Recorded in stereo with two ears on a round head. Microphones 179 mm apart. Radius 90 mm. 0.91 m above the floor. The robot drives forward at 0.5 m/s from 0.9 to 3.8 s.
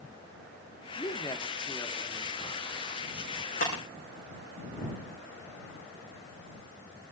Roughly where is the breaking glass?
Left.